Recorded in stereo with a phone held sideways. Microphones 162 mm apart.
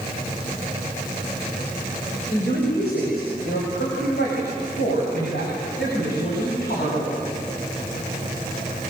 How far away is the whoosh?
No whoosh in this recording.